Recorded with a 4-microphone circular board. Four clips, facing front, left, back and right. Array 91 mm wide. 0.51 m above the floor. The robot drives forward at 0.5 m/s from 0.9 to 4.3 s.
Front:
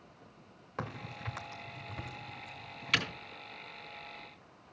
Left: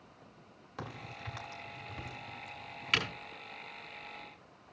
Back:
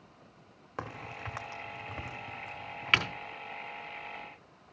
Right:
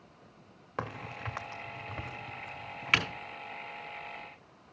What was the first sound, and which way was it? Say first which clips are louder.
A crack: right 6 dB, back 1 dB; 110° right.